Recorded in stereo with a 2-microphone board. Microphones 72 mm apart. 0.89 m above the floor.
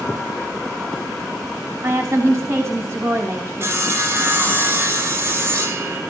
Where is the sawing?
35° right (ahead or behind), 1.0 m.